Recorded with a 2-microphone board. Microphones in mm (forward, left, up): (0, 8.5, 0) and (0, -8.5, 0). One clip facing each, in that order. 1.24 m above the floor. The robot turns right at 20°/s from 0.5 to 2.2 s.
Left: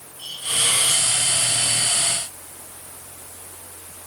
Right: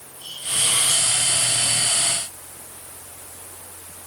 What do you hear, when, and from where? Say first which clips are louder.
0.2 s a hiss: left 2 dB; 45° left (ahead or behind), 5 m; by 1.1 s 55° left (ahead or behind), 5 m